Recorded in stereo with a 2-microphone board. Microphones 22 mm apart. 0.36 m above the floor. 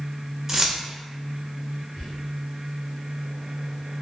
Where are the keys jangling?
20° right (ahead or behind), 0.5 m.